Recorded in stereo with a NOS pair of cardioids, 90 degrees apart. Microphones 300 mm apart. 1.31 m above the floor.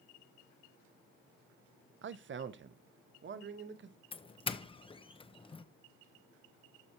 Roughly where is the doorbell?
Ahead.